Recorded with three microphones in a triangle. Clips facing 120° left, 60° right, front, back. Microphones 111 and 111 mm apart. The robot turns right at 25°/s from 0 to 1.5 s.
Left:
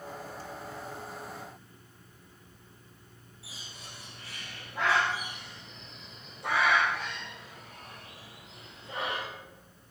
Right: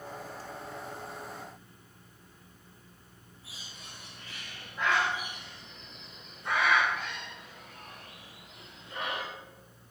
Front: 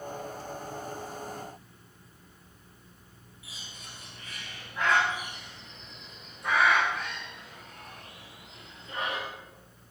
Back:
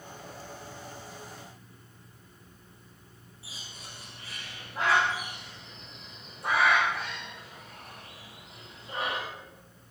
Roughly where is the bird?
Behind left.